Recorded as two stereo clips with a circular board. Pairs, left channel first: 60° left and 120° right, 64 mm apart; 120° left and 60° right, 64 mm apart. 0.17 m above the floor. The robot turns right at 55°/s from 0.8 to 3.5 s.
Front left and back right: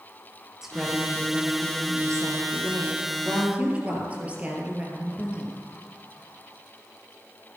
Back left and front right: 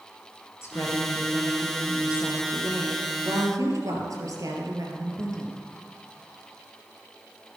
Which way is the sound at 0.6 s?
160° left.